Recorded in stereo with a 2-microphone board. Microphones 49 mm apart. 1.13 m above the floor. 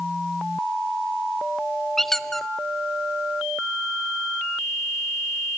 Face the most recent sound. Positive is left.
turn(degrees=5)  # may be behind; listen again after turning